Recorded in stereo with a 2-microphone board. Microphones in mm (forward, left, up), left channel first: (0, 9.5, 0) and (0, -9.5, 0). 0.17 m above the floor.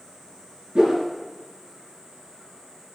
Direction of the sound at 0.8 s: 55° right (ahead or behind).